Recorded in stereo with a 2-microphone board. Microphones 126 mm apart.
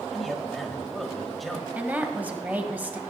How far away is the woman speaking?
About 1.4 m.